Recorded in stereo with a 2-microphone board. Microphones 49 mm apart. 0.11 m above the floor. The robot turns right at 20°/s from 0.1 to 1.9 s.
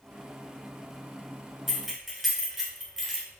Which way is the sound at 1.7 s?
5° right (ahead or behind).